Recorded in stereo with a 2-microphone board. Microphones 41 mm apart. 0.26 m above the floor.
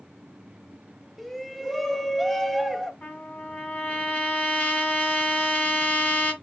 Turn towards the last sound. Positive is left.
turn(degrees=35)  # may be behind; listen again after turning